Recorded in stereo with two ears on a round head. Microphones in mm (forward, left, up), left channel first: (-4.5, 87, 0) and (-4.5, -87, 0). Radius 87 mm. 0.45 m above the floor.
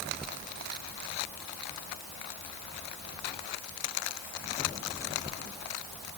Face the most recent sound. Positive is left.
No sound to turn to.